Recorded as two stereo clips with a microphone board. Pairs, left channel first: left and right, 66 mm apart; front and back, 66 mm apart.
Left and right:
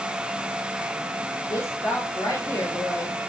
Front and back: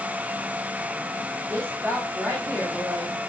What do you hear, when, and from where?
1.5 s a woman speaking: 125° left, 3.5 m